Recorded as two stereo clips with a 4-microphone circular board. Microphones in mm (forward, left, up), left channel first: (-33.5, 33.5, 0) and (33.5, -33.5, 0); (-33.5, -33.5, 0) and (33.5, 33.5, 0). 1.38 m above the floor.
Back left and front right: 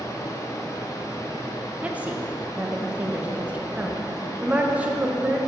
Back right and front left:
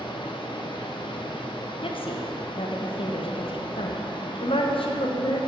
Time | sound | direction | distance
0.0 | running water | 170° right | 0.7 m
1.8 | a woman speaking | 120° right | 0.7 m